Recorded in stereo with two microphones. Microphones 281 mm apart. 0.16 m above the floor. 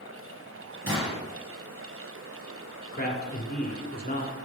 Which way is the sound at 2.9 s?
30° left (ahead or behind).